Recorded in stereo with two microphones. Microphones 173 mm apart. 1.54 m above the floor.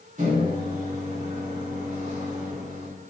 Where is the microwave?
50° right (ahead or behind), 3.5 m.